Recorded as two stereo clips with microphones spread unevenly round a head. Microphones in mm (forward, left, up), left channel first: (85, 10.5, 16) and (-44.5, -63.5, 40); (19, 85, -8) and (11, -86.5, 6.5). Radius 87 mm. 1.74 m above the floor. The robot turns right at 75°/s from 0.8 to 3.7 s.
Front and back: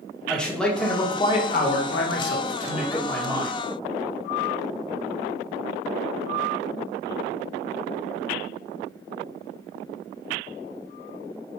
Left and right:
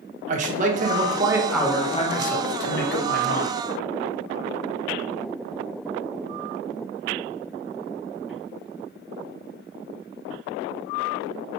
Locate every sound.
0.3 s a man speaking: 60° right, 0.7 m; by 3.5 s 145° left, 0.7 m